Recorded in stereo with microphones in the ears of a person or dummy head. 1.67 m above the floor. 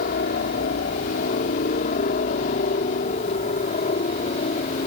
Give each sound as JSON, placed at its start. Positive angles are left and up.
{"t": 0.0, "sound": "a helicopter", "side_deg": 40}